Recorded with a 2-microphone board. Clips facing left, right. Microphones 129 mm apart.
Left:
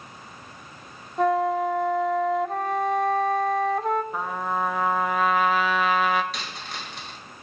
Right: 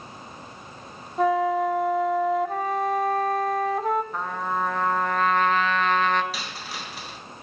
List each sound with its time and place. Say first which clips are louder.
1.2 s a flute: even; centre (ahead or behind), 1.1 m
4.1 s a trumpet: even; 5° left (ahead or behind), 1.3 m
6.3 s a dropped coin: right 1 dB; 5° right (ahead or behind), 3 m